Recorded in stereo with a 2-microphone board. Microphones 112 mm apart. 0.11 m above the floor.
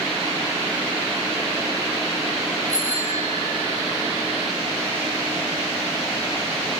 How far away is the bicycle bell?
About 6.5 m.